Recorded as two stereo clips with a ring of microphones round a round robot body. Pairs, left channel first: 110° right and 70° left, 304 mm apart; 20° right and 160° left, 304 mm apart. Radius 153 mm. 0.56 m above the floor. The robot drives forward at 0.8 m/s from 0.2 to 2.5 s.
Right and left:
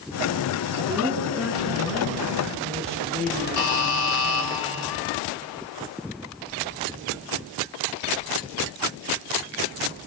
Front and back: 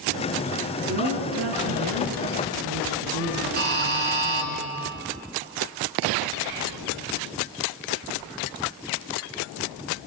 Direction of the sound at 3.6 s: 145° right.